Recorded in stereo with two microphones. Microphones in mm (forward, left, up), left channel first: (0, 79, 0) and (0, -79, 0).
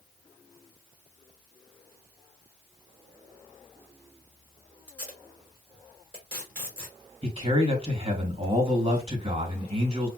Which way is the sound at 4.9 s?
10° right (ahead or behind).